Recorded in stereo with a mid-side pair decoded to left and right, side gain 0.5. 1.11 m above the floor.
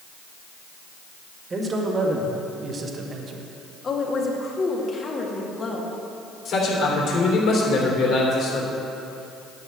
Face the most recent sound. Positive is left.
turn(degrees=65)